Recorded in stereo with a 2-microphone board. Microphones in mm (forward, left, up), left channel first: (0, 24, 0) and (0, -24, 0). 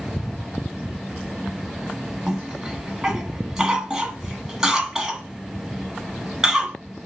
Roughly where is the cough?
Centre.